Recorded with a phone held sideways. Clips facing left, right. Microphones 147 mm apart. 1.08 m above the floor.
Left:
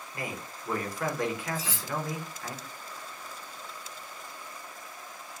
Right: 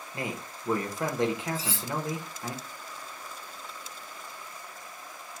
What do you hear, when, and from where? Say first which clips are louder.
0.1 s a man speaking: right 2 dB; 25° right (ahead or behind), 0.9 m
1.6 s cutlery clinking: right 2 dB; 25° right (ahead or behind), 1.2 m